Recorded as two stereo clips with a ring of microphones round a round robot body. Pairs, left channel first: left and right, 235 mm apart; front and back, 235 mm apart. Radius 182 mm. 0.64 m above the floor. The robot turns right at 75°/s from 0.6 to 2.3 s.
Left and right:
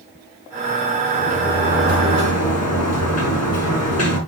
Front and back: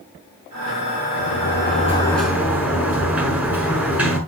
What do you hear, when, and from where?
1.1 s a sliding door: 10° left, 6 m; by 4.2 s 95° left, 6 m